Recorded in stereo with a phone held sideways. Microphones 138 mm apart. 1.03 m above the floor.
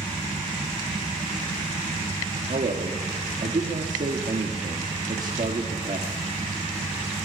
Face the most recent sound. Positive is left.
turn(degrees=-70)  # may be behind; listen again after turning